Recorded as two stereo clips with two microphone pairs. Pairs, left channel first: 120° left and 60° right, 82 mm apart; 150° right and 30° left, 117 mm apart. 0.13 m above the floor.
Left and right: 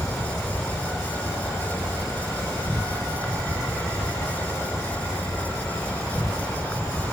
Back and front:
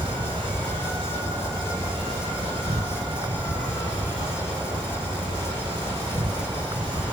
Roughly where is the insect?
Ahead left.